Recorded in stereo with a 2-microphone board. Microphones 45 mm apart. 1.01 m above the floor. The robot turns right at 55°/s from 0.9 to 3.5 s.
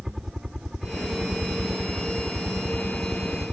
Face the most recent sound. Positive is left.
turn(degrees=-30)